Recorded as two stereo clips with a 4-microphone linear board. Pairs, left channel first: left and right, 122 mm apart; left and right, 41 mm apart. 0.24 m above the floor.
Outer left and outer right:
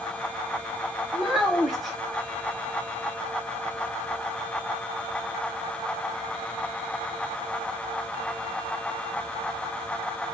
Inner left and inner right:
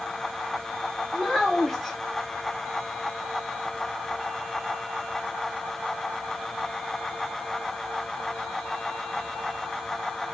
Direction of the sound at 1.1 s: Centre (ahead or behind).